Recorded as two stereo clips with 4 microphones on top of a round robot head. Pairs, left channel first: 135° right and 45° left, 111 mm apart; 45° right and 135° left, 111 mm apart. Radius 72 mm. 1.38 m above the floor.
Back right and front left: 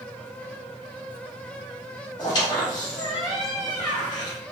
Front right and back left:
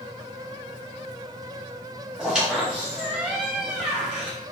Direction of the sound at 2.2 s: 145° right.